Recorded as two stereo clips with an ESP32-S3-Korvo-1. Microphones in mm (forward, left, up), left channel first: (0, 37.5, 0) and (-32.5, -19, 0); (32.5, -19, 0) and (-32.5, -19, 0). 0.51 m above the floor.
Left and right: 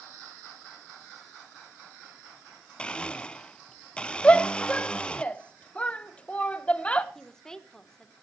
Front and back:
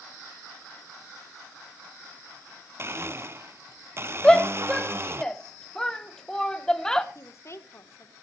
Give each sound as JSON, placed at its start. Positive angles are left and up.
{"t": 2.8, "sound": "a blender", "azimuth_deg": 135, "distance_m": 0.7}
{"t": 4.2, "sound": "a shout", "azimuth_deg": 60, "distance_m": 0.8}
{"t": 7.2, "sound": "a woman speaking", "azimuth_deg": -15, "distance_m": 1.3}